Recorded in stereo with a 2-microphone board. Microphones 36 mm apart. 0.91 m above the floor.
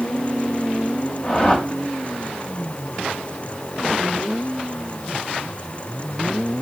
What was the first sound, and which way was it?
A whoosh, 25° left (ahead or behind).